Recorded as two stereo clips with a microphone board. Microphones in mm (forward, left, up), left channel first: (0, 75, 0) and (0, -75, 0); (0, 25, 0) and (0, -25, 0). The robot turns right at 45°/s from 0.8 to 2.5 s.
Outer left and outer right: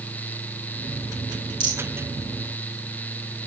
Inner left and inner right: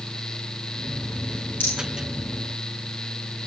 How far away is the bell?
No bell in this recording.